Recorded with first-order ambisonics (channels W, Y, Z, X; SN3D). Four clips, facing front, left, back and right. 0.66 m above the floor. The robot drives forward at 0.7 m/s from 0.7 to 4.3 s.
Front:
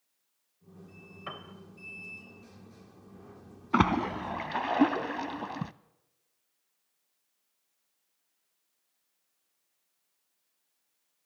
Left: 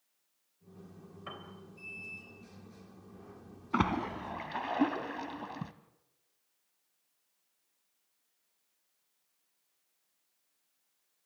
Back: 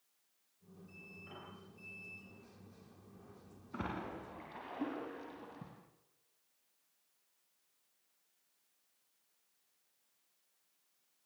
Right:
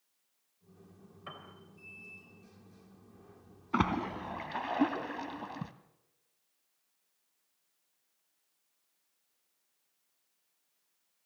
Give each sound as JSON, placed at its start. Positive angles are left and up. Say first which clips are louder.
{"t": 1.3, "sound": "a piano", "louder": "left 2 dB, front 14 dB", "azimuth_deg": 5, "distance_m": 3.0}
{"t": 3.7, "sound": "a splash", "louder": "even, front 17 dB", "azimuth_deg": 0, "distance_m": 1.3}